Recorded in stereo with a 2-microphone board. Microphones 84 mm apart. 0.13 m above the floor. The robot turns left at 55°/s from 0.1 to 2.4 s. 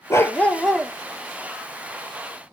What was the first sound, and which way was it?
A dog barking, 40° left.